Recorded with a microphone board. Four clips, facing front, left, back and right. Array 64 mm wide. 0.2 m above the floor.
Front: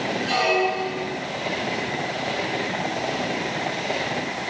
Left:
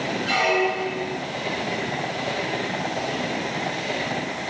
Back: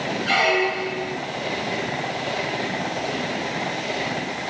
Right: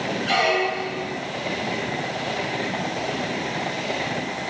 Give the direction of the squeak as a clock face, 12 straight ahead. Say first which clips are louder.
Even, back 2 dB; 6 o'clock.